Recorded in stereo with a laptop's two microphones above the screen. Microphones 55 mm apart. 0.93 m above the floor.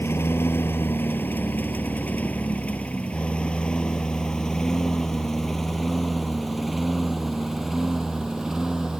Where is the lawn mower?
45° left (ahead or behind); by 9.0 s 10° right (ahead or behind).